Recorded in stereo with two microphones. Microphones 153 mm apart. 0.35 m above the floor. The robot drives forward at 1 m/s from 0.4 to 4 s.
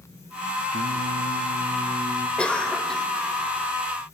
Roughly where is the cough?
Centre.